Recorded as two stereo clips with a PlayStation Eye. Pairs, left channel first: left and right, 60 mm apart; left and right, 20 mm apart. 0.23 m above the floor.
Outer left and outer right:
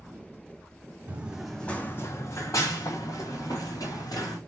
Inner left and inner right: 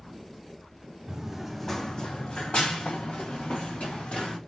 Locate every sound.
1.1 s running footsteps: 25° right (ahead or behind), 0.6 m; by 4.4 s 85° left, 2.0 m